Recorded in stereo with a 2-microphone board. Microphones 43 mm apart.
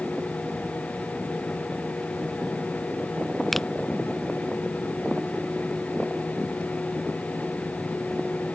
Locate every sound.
3.5 s a finger snap: 5° left (ahead or behind)